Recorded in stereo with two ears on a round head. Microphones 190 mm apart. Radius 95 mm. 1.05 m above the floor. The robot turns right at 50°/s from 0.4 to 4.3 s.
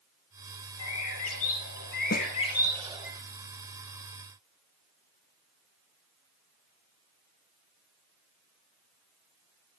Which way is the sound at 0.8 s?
70° left.